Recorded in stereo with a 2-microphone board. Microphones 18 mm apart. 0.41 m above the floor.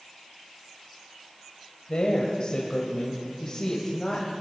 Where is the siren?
No siren in this recording.